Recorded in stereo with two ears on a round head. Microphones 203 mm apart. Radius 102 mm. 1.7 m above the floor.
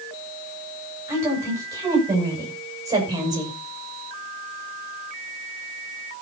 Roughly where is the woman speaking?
Centre.